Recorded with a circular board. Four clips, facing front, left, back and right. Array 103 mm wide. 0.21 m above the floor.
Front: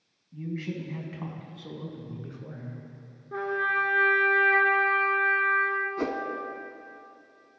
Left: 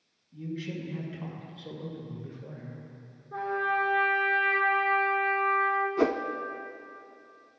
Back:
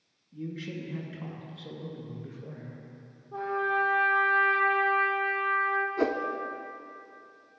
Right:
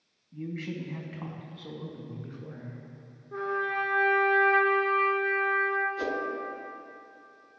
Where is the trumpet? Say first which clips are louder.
Left 2 dB, front 1 dB; 5° right, 1.7 m.